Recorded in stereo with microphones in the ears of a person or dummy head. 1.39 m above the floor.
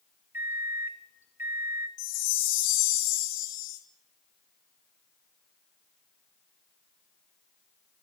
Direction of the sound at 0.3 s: 15° right (ahead or behind).